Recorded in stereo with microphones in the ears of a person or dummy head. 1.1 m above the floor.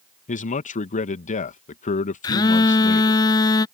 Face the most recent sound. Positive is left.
turn(degrees=20)  # may be behind; listen again after turning